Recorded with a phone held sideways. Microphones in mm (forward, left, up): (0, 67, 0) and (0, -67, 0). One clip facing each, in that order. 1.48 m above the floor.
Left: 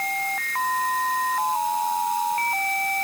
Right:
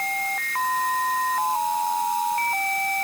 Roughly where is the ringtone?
I don't hear a ringtone.